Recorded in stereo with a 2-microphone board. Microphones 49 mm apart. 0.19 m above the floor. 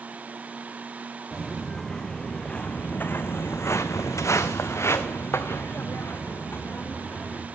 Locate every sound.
1.3 s footsteps: 5° left (ahead or behind), 1.4 m; by 7.5 s 40° left (ahead or behind), 2 m